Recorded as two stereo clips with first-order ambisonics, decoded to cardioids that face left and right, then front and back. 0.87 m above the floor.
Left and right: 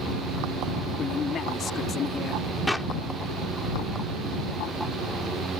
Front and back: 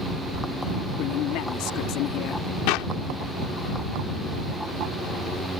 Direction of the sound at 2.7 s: 5° left.